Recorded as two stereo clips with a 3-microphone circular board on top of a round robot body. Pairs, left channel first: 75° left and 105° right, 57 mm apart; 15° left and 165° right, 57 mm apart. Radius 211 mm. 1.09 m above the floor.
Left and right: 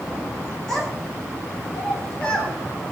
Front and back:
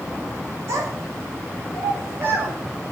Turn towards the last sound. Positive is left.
turn(degrees=145)